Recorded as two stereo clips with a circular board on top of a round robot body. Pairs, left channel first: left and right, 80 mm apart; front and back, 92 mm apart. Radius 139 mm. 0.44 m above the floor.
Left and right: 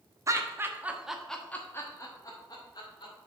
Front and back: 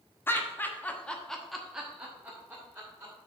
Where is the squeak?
I don't hear a squeak.